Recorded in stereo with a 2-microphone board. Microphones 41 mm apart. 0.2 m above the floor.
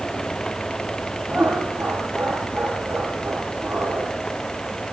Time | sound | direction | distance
1.3 | laughter | 50° right (ahead or behind) | 10 m